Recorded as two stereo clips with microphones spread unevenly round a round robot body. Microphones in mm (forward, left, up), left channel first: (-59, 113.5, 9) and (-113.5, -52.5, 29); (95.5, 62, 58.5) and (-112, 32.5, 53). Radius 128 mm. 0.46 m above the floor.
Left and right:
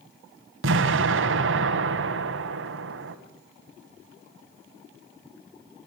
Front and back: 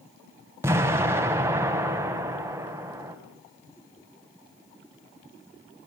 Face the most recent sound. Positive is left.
turn(degrees=-95)